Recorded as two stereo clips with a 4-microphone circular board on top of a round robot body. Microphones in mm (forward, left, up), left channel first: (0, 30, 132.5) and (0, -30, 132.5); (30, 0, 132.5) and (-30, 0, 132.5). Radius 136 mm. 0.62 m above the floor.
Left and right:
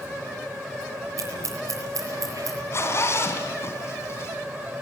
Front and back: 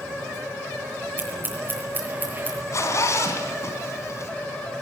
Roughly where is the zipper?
Ahead left.